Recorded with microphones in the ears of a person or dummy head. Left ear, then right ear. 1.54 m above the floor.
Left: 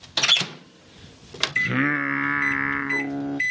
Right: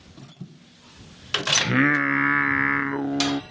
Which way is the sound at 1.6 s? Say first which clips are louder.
Right 1 dB; centre (ahead or behind).